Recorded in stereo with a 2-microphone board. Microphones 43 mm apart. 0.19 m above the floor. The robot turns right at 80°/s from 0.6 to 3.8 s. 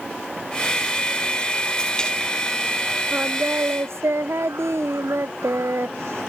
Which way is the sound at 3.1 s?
150° right.